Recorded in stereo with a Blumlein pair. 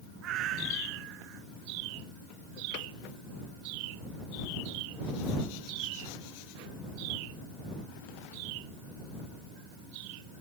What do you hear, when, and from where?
0.2 s a cat meowing: 35° right